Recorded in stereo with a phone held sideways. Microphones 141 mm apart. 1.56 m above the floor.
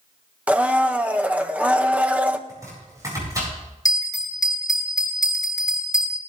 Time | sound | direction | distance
0.5 | a blender | 10° right (ahead or behind) | 0.7 m
2.5 | chopping | 25° right (ahead or behind) | 8 m
3.9 | a bell | 25° left (ahead or behind) | 2.5 m